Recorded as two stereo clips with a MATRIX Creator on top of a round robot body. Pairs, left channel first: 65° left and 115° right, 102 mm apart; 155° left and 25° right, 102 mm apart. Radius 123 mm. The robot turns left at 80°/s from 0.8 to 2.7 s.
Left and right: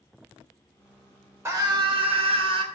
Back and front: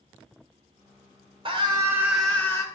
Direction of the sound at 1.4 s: 50° right.